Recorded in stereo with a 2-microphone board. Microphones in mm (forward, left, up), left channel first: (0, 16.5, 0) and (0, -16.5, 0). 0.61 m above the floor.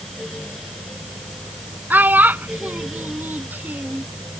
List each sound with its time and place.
1.9 s a child speaking: 80° right